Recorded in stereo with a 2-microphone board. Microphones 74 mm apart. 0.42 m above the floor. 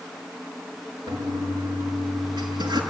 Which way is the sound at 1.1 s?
75° right (ahead or behind).